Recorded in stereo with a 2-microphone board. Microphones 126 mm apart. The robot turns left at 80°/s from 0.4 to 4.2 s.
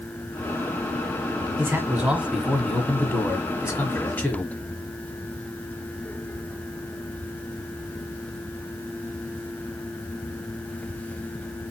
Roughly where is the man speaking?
Centre.